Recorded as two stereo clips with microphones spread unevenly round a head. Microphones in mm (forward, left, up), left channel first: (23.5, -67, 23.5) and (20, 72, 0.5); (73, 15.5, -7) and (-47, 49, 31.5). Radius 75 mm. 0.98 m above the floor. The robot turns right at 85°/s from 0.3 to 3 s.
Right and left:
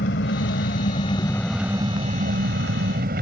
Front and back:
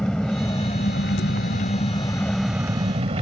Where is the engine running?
105° right; by 3.2 s 125° left.